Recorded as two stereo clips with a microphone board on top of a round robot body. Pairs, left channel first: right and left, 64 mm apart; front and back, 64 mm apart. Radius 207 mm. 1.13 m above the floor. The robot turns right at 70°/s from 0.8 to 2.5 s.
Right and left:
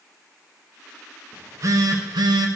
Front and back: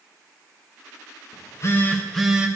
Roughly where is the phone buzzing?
Ahead left.